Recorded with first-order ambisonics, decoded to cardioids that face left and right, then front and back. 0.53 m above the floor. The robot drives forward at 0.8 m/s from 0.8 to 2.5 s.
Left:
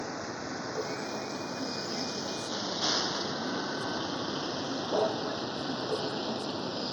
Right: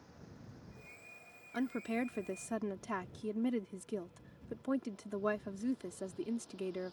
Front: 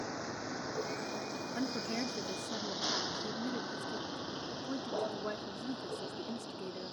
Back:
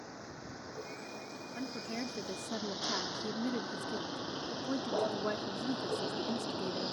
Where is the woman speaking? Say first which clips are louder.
Right 1 dB, front 2 dB; 45° right; by 6.9 s 120° right.